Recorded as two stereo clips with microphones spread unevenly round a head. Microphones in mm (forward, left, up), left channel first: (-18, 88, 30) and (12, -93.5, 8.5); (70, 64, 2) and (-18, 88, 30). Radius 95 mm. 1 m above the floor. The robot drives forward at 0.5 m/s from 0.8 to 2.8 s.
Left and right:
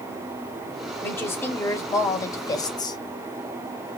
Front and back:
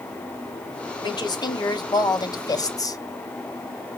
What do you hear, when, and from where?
1.0 s a woman speaking: 20° left, 2.5 m; by 3.0 s 30° left, 1.9 m